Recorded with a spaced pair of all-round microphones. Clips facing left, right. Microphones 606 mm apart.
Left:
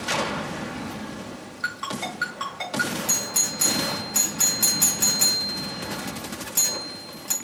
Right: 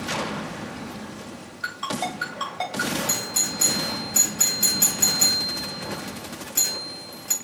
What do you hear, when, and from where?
1.6 s a ringtone: 20° right (ahead or behind), 4 m
3.1 s a doorbell: 25° left (ahead or behind), 1.0 m